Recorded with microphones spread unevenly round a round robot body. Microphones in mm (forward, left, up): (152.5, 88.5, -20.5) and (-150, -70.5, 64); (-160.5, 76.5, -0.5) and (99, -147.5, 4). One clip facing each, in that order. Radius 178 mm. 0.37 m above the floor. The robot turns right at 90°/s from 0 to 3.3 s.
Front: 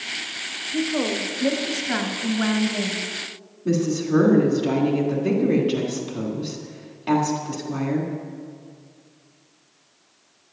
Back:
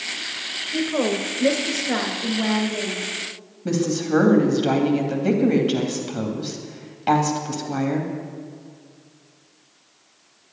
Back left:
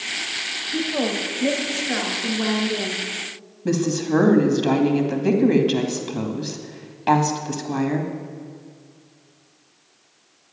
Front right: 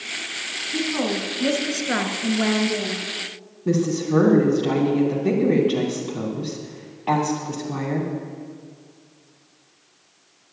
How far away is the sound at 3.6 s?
About 2.5 m.